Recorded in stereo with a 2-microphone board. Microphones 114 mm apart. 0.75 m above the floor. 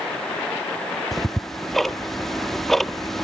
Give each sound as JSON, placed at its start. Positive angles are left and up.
{"t": 1.1, "sound": "ticking", "side_deg": 0}